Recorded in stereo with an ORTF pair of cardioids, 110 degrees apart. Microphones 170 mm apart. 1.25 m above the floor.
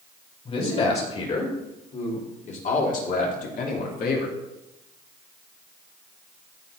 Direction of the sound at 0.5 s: 35° left.